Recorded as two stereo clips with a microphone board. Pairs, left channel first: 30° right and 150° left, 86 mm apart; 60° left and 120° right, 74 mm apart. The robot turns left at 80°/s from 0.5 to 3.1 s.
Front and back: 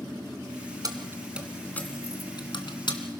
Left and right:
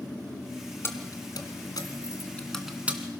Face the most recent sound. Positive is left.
turn(degrees=-65)